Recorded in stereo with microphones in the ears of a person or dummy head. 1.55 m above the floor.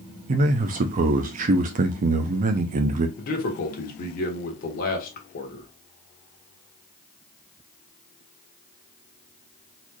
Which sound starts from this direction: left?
A man speaking, at 3.2 s.